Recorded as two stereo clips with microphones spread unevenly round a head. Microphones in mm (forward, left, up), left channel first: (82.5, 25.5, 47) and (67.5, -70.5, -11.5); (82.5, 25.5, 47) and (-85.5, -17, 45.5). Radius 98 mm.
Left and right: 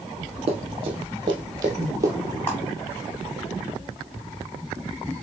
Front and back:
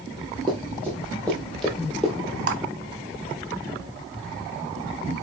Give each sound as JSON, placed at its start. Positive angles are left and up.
{"t": 0.5, "sound": "running footsteps", "azimuth_deg": -55, "distance_m": 1.9}
{"t": 2.5, "sound": "a clap", "azimuth_deg": 145, "distance_m": 1.4}